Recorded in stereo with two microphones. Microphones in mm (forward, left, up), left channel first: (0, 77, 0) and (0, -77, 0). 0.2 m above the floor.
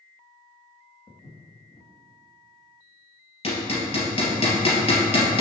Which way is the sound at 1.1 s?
35° left (ahead or behind).